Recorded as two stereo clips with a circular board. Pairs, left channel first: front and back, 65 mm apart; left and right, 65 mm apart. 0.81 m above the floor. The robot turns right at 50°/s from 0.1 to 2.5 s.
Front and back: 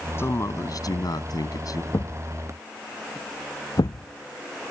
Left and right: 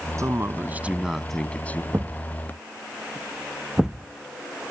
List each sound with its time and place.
0.2 s a man speaking: 50° right; by 1.8 s 30° left
1.9 s a thud: 35° right; by 4.7 s 5° right